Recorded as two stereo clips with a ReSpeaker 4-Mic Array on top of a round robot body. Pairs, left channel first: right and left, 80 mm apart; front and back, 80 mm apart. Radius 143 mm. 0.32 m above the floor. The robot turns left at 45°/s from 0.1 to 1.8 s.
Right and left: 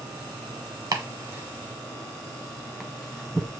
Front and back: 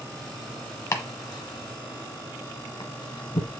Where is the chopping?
45° left, 1.0 m; by 3.5 s 5° left, 1.0 m.